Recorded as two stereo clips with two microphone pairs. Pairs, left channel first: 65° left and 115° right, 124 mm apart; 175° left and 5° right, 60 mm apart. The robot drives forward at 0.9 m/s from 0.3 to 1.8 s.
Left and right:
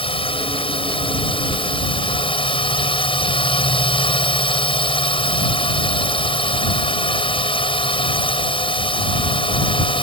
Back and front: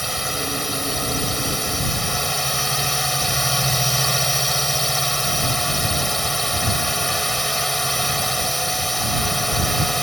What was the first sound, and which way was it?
A drone, 80° left.